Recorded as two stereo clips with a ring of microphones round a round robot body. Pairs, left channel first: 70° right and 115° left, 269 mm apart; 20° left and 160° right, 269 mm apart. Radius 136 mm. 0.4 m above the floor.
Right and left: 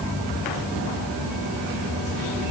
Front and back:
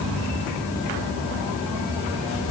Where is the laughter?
I don't hear laughter.